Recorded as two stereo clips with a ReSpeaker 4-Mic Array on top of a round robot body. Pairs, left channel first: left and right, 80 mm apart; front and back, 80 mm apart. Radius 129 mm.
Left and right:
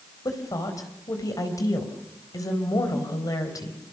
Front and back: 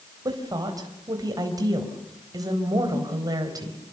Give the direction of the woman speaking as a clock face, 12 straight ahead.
7 o'clock.